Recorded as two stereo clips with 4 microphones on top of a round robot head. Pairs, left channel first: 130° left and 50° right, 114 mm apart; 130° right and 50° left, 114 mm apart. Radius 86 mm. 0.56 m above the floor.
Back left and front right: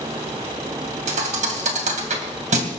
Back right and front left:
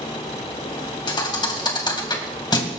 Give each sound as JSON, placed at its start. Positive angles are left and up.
{"t": 1.1, "sound": "a thud", "azimuth_deg": -75, "distance_m": 2.0}